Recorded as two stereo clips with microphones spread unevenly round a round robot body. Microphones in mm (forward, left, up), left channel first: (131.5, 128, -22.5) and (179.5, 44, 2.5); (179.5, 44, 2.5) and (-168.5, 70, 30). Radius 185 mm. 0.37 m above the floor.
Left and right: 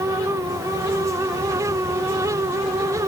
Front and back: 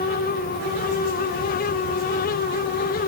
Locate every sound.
Only background noise.